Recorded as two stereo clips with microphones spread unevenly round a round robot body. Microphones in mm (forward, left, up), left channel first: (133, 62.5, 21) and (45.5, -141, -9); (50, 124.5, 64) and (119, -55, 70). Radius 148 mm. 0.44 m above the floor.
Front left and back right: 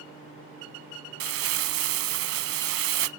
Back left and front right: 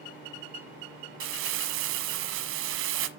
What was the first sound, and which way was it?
Crumpling, 95° right.